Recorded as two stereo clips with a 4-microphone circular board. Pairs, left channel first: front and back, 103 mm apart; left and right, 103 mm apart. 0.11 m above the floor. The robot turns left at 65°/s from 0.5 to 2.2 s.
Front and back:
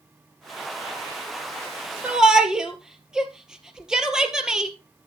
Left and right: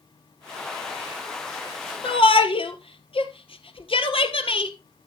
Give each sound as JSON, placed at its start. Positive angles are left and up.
{"t": 2.0, "sound": "a shout", "azimuth_deg": 105, "distance_m": 2.0}